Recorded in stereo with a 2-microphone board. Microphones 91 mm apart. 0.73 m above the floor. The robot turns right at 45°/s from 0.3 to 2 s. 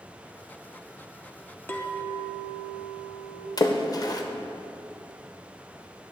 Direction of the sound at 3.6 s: 45° left (ahead or behind).